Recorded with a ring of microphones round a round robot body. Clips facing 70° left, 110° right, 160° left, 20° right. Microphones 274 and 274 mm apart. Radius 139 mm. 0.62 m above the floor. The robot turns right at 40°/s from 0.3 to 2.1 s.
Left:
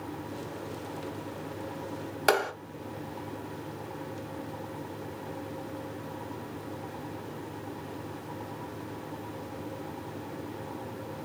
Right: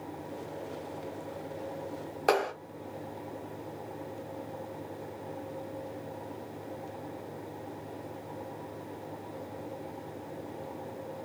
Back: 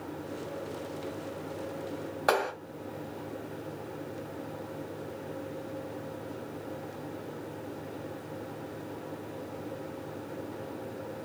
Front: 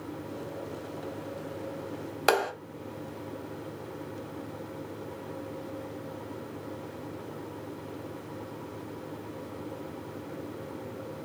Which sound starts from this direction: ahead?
A clap, at 2.3 s.